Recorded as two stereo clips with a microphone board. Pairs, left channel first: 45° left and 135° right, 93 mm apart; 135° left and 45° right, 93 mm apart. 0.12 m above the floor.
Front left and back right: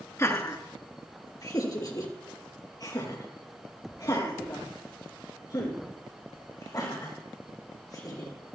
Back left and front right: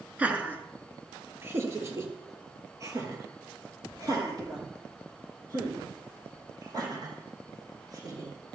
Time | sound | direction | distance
0.2 | laughter | 20° left | 1.9 m